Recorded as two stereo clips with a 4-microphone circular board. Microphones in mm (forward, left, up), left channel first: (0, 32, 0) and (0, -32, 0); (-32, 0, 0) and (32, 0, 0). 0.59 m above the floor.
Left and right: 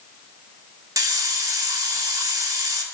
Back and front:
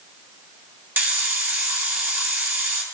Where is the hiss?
60° right, 2 m.